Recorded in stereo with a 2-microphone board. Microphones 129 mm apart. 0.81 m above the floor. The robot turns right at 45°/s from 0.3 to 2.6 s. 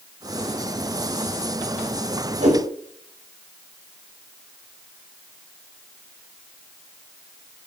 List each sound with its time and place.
2.4 s a whoosh: 85° right, 6.5 m; by 2.6 s 80° right, 6.5 m